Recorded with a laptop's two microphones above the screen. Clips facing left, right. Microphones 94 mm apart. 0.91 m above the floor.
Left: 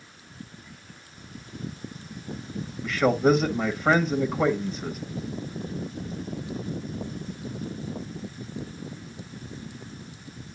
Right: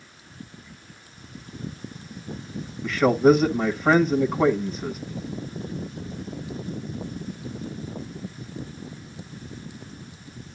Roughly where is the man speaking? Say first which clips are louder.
Right 4 dB; centre.